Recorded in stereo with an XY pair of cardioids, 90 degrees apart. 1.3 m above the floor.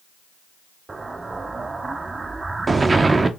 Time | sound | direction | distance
0.9 | an explosion | 30° right | 0.7 m